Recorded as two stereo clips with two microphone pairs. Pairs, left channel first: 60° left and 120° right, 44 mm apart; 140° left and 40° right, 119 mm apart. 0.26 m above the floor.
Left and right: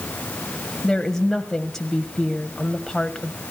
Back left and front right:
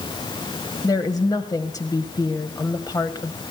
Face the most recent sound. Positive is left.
turn(degrees=130)